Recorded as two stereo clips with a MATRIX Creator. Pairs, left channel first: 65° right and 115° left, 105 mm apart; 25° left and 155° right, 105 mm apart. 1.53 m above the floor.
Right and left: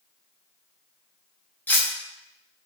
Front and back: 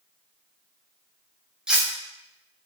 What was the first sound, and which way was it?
Cutlery clinking, 95° right.